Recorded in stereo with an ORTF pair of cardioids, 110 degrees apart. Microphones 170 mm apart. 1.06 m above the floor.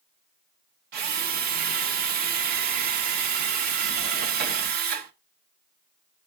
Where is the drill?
65° right, 1.2 m.